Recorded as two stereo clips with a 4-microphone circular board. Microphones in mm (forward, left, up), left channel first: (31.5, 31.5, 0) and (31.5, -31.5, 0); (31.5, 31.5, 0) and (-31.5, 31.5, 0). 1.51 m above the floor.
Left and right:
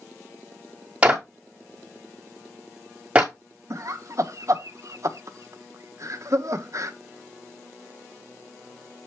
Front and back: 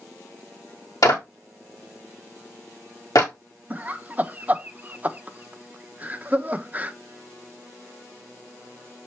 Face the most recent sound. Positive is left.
turn(degrees=-120)